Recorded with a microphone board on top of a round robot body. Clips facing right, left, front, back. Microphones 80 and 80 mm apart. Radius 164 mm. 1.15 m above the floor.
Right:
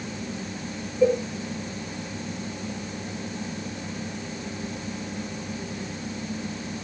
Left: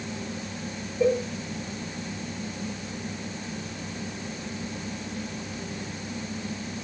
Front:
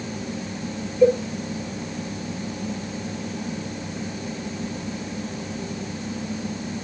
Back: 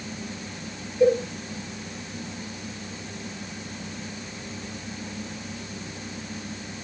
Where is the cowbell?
120° left, 6.5 m.